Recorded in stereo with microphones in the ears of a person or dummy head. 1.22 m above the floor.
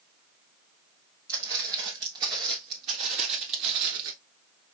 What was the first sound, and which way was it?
Footsteps, 20° right (ahead or behind).